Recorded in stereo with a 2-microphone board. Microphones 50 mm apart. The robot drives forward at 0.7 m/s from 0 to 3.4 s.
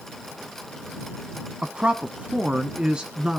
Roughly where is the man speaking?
Right.